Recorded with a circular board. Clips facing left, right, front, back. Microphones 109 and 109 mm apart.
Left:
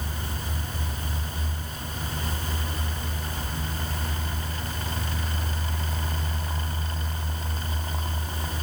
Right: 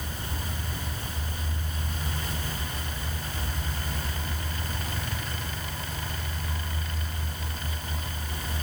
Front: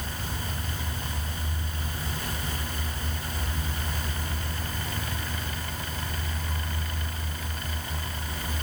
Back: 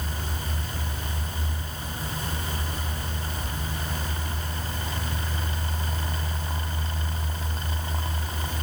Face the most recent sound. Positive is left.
No sound to turn to.